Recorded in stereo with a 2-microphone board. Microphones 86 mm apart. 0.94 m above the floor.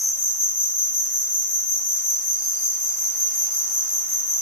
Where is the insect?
20° right (ahead or behind), 0.9 m.